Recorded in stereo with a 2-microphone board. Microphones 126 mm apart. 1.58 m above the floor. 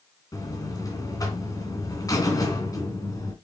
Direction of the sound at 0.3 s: 30° left (ahead or behind).